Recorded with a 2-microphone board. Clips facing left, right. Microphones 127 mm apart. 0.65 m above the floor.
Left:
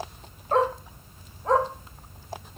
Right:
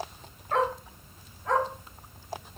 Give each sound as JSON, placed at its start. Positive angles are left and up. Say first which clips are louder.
{"t": 0.5, "sound": "a dog barking", "louder": "left 4 dB", "side_deg": 40, "distance_m": 1.2}